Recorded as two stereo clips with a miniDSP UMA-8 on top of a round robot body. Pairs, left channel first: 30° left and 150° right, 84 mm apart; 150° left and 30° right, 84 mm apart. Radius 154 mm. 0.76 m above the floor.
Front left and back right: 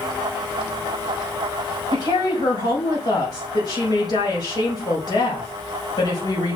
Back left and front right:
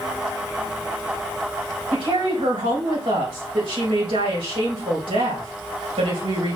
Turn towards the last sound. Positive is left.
turn(degrees=-10)